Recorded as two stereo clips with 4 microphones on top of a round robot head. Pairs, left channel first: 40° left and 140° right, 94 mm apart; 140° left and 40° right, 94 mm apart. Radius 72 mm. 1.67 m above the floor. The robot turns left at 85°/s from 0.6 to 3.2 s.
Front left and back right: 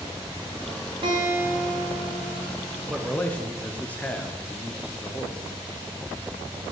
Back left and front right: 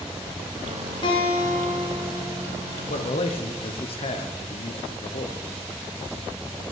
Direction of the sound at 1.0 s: Straight behind.